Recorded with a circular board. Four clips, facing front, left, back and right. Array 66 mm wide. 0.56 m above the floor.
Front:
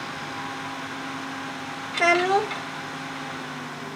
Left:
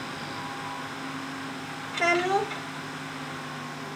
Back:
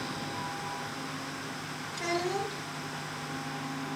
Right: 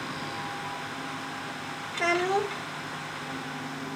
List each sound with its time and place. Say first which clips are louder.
1.9 s a child speaking: left 2 dB, front 12 dB; 10° left, 1.1 m